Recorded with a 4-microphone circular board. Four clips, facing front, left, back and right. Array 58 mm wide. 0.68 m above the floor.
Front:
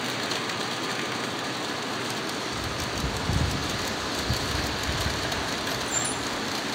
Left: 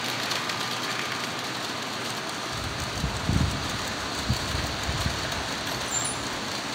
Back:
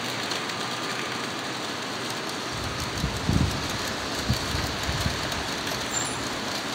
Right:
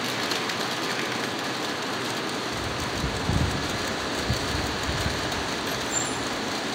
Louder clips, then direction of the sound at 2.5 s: Right 3 dB, front 1 dB; 170° left.